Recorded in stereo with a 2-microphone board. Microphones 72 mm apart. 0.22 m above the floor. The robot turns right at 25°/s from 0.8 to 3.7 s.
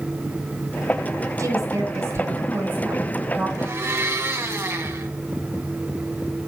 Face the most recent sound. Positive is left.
turn(degrees=-40)  # may be behind; listen again after turning